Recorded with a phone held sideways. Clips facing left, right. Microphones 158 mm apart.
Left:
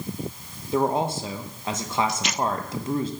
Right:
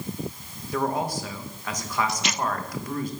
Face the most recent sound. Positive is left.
turn(degrees=25)  # may be behind; listen again after turning